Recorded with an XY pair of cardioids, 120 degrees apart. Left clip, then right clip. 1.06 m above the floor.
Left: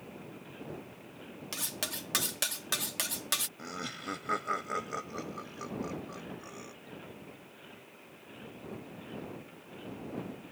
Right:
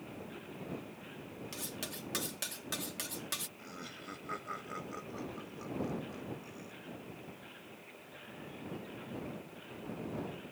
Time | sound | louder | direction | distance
1.5 | cutlery clinking | left 7 dB | 45° left | ?
3.6 | laughter | left 7 dB | 50° left | ?